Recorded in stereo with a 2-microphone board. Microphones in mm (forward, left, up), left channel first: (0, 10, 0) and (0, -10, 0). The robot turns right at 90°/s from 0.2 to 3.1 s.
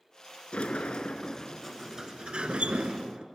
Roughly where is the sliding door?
Left.